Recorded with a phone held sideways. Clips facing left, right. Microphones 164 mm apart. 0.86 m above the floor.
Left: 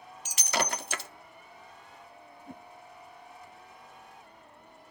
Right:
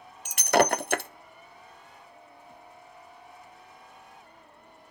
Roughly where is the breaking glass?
Right.